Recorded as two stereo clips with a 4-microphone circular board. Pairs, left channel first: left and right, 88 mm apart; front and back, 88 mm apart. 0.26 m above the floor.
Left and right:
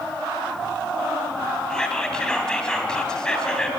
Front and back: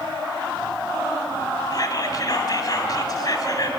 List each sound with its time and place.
1.7 s whispering: 10° left, 1.8 m